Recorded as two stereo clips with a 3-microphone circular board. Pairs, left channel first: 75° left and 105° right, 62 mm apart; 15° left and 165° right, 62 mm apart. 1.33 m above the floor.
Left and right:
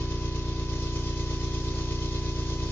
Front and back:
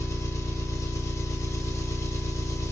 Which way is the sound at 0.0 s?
20° left.